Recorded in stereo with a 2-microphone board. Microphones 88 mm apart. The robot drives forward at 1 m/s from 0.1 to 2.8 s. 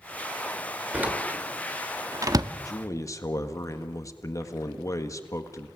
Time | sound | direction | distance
0.9 | a door slam | 20° right (ahead or behind) | 2 m
2.6 | a man speaking | 40° left (ahead or behind) | 1.5 m